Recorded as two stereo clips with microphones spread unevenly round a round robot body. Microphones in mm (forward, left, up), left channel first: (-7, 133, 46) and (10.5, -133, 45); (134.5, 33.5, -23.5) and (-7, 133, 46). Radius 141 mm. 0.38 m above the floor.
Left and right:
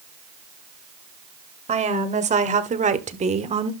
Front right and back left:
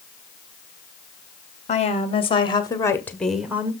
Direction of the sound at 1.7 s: 25° right.